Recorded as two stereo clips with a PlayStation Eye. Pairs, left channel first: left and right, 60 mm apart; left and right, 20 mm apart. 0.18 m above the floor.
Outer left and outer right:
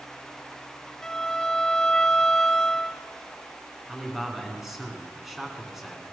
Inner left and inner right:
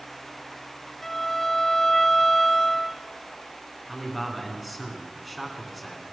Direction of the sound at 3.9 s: 5° right (ahead or behind).